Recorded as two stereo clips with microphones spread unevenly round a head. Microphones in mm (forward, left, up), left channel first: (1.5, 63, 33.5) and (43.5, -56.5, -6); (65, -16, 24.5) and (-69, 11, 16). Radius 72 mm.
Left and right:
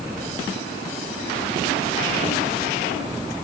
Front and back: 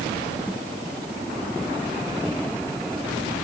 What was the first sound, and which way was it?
Only background noise.